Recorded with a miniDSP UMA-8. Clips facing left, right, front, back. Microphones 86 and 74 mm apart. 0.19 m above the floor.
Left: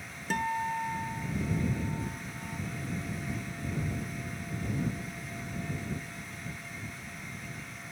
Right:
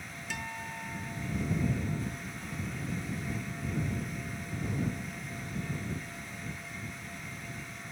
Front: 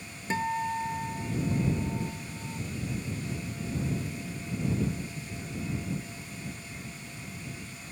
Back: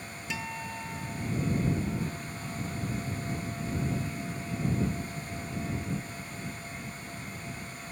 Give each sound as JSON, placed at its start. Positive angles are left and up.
{"t": 0.3, "sound": "a guitar", "azimuth_deg": 50}